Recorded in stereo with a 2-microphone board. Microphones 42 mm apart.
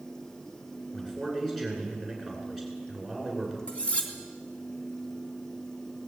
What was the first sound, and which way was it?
A man speaking, 5° left (ahead or behind).